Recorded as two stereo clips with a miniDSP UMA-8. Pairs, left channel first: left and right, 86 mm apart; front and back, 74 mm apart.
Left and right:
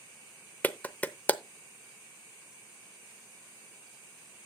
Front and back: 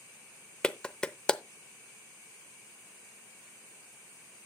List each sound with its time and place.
0.6 s a clap: 55° left, 0.6 m